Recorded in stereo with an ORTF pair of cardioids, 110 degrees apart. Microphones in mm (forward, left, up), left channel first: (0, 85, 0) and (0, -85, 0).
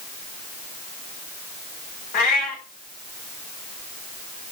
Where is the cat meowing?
60° left, 3 m.